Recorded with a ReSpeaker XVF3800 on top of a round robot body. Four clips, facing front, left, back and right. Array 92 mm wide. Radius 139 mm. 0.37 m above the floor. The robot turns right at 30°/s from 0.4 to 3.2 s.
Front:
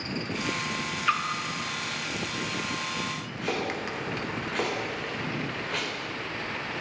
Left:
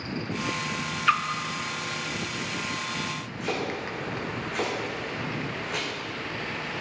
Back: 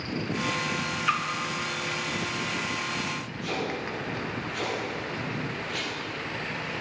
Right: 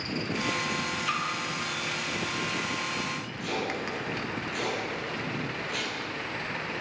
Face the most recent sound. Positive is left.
turn(degrees=30)